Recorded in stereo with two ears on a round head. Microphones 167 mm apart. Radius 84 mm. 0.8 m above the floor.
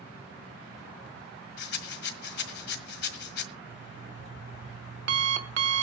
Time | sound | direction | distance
1.6 | a rattle | 65° left (ahead or behind) | 1.7 m
3.7 | an alarm clock | 65° right (ahead or behind) | 1.5 m